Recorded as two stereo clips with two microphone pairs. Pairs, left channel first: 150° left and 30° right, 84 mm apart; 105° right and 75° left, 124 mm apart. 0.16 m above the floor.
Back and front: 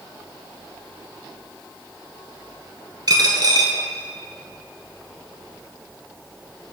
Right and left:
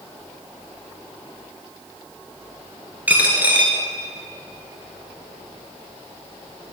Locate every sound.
3.1 s a dropped coin: 5° right, 1.1 m